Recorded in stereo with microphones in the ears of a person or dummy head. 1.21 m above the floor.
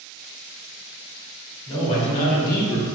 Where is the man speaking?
35° left (ahead or behind), 1.9 m; by 2.9 s 65° left (ahead or behind), 1.0 m.